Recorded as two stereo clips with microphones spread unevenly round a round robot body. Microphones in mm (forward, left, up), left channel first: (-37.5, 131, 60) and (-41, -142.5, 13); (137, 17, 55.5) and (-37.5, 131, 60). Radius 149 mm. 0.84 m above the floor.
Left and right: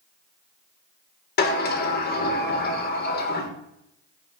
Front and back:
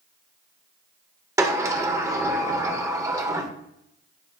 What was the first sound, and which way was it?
A sliding door, 90° left.